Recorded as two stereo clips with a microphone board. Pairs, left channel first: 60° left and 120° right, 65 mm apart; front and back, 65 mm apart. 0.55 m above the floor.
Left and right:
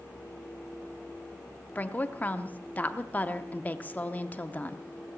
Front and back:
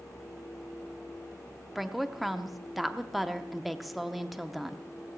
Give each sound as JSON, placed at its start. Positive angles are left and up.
{"t": 1.8, "sound": "a woman speaking", "azimuth_deg": 95, "distance_m": 0.7}